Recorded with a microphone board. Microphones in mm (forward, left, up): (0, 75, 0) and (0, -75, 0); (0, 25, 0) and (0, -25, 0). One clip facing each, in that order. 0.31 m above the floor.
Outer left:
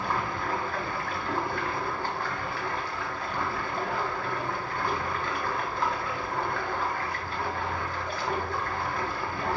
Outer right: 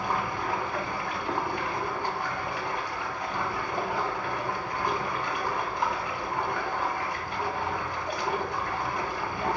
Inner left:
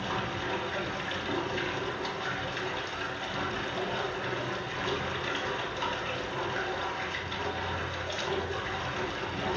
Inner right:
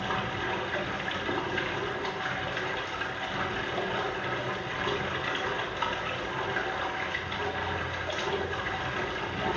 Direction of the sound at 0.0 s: 15° right (ahead or behind).